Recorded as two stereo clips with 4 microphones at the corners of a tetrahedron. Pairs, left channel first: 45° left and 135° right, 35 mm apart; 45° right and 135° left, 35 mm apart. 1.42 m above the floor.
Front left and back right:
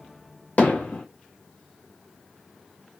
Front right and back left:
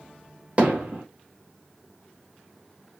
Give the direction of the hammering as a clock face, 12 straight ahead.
9 o'clock.